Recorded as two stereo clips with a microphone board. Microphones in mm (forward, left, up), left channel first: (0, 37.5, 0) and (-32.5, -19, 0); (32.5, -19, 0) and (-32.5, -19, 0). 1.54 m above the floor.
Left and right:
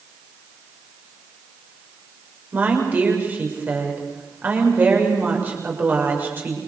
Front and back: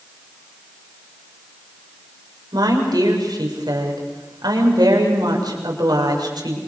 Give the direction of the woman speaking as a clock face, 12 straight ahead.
6 o'clock.